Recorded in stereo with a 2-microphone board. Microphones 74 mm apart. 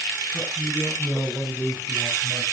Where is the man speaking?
15° right (ahead or behind), 8 m.